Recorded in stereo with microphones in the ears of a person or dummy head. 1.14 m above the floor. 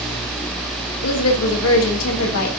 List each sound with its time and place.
1.0 s a woman speaking: 80° left, 1.6 m